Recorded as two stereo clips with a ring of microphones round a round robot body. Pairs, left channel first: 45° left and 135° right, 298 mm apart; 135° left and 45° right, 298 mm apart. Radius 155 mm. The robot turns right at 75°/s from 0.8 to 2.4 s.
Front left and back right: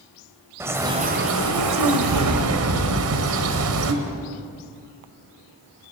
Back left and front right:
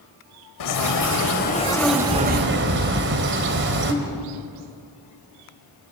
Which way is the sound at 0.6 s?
145° left.